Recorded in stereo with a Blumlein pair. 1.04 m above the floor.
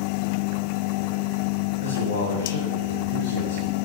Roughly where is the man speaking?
Ahead left.